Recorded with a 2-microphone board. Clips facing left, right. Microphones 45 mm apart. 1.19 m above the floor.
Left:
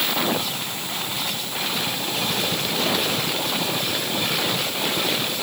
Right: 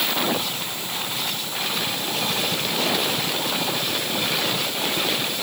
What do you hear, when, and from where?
Only background noise.